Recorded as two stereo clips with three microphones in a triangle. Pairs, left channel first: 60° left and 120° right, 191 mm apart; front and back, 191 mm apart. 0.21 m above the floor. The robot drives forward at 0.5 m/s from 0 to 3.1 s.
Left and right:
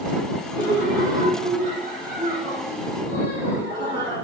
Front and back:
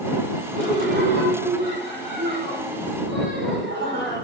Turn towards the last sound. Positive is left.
turn(degrees=-160)